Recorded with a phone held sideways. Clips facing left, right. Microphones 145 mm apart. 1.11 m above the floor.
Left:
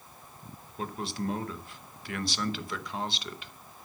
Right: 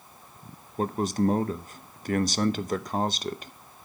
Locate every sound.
0.8 s a man speaking: 40° right (ahead or behind), 0.7 m